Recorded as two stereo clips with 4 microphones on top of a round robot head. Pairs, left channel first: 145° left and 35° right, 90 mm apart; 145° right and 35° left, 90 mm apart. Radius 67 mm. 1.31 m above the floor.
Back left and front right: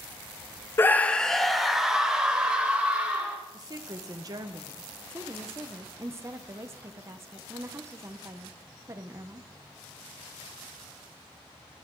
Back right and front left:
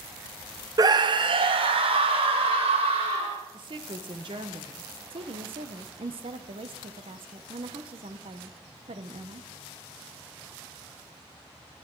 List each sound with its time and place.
0.8 s a scream: 80° left, 0.8 m; by 3.4 s 40° left, 3.5 m
3.5 s a woman speaking: 10° left, 1.2 m
5.1 s a woman speaking: 25° left, 0.9 m